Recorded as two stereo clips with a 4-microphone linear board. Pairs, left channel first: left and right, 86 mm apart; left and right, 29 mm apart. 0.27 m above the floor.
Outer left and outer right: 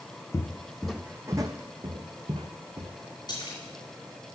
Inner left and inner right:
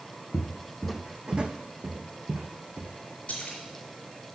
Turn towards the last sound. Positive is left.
turn(degrees=55)  # may be behind; listen again after turning